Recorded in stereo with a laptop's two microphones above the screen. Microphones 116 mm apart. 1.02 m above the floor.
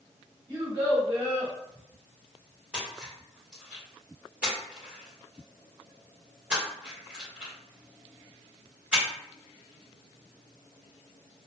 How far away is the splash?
About 1.0 m.